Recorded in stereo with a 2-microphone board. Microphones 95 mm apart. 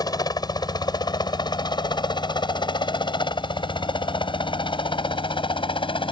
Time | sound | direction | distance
0.0 | a helicopter | 45° left (ahead or behind) | ?